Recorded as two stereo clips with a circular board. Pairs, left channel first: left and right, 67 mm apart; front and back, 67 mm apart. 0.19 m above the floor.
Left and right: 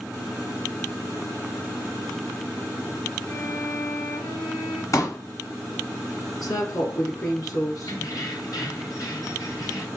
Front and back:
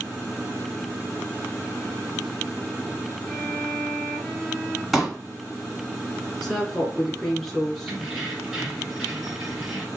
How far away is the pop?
About 1.4 m.